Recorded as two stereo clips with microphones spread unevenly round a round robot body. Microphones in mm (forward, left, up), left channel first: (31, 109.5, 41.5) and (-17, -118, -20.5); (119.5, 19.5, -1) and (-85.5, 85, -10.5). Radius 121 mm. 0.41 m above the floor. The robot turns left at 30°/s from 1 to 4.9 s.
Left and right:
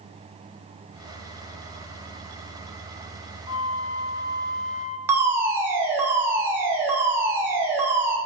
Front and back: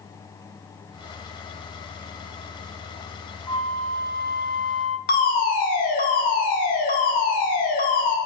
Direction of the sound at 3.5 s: 55° left.